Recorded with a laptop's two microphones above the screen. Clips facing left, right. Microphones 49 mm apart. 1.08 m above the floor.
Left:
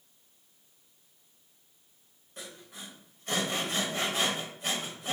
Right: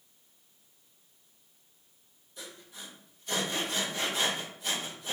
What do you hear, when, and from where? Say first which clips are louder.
2.4 s sawing: left 1 dB; 55° left (ahead or behind), 1.5 m